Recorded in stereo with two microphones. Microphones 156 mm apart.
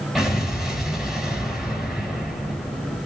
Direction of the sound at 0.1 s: Centre (ahead or behind).